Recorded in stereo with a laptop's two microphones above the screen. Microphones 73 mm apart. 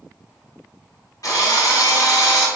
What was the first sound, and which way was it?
A drill, 55° left (ahead or behind).